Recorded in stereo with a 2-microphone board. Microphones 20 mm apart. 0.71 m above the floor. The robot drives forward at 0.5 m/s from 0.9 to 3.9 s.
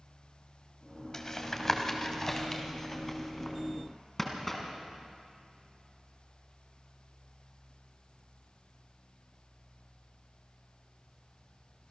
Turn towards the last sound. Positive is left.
turn(degrees=15)  # may be behind; listen again after turning